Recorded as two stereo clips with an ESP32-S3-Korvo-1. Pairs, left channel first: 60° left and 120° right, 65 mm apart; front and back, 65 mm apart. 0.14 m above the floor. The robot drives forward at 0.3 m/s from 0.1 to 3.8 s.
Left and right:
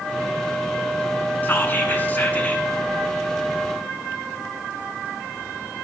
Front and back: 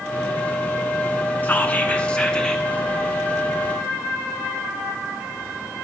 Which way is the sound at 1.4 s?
40° left.